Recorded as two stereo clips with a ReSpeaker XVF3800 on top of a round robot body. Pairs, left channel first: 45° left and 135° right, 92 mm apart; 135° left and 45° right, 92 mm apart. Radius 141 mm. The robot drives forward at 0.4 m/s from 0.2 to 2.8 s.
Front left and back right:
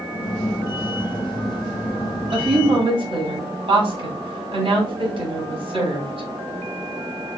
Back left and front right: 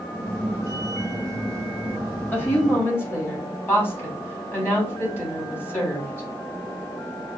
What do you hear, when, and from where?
2.3 s a woman speaking: 155° right, 2 m; by 6.3 s 160° right, 2.5 m